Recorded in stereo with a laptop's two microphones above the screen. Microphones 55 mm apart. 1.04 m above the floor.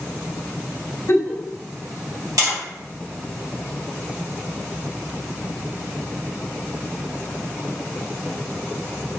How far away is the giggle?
About 1.2 m.